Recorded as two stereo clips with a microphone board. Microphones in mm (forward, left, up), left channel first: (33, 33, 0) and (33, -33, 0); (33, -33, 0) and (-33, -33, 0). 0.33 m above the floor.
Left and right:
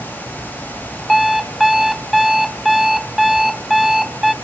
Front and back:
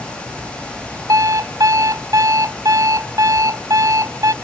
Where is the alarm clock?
175° right, 0.8 m.